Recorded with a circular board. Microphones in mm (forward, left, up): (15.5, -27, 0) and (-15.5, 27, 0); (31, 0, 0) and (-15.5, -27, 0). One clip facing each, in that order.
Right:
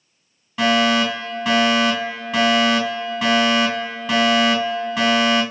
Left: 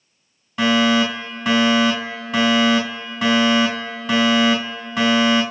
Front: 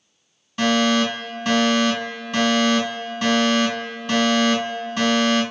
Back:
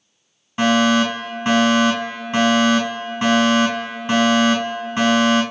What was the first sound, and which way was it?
A fire alarm, 150° right.